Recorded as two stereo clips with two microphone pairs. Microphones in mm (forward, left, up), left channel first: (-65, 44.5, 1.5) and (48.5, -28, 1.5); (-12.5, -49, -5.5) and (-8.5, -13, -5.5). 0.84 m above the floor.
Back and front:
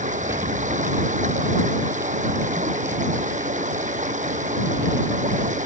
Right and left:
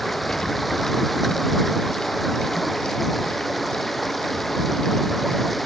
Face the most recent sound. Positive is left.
turn(degrees=-10)